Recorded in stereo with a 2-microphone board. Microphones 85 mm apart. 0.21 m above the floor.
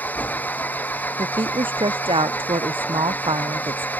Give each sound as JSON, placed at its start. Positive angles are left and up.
{"t": 0.0, "sound": "an engine running", "side_deg": 20}
{"t": 1.2, "sound": "a woman speaking", "side_deg": -85}